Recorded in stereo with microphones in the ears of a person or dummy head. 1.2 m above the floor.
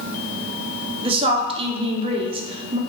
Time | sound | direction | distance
1.0 | a woman speaking | 30° right (ahead or behind) | 0.5 m